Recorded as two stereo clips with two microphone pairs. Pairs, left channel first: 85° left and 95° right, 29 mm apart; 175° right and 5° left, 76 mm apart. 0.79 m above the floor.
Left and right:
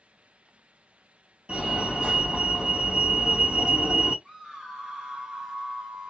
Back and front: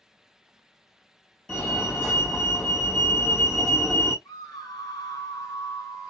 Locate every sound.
1.5 s a fire alarm: 105° right, 1.8 m
4.2 s a scream: 165° right, 2.0 m